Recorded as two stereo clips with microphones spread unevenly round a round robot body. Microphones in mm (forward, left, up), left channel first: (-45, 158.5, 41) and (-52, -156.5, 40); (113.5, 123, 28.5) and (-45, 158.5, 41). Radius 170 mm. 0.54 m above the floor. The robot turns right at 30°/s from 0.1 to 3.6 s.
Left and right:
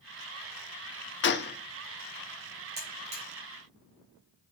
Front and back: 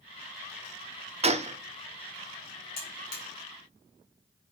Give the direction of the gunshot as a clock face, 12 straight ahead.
8 o'clock.